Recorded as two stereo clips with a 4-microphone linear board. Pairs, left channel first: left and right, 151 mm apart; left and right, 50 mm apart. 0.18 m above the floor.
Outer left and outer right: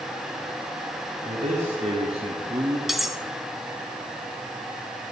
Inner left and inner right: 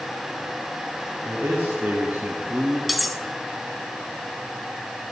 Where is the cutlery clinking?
Centre (ahead or behind), 0.8 m.